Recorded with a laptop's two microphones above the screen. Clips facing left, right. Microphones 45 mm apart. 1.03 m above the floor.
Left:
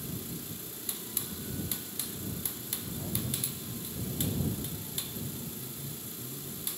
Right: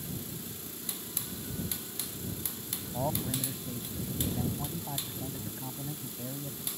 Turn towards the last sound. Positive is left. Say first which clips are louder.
# right 6 dB
turn(degrees=-80)